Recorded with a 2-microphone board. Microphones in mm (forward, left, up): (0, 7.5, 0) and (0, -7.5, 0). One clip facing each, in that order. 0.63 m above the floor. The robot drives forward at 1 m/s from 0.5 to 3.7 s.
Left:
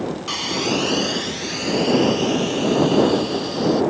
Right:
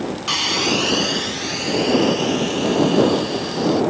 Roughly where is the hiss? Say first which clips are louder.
Right 4 dB; right.